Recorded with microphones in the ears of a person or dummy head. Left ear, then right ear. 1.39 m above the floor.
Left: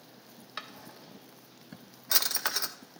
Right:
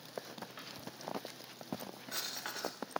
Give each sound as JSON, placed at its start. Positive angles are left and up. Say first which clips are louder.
{"t": 0.6, "sound": "a drawer", "louder": "left 4 dB", "side_deg": 55, "distance_m": 0.9}